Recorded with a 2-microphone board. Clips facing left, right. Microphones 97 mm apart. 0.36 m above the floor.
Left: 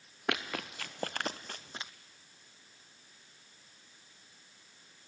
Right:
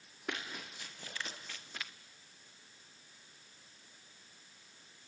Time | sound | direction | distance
0.3 | running footsteps | 75° left (ahead or behind) | 1.7 m